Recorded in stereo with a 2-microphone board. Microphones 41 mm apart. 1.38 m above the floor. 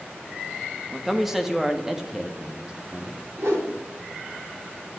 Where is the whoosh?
85° right, 4 m.